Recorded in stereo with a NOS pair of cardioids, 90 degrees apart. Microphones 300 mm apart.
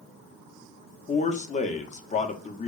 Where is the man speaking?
25° left, 0.5 m.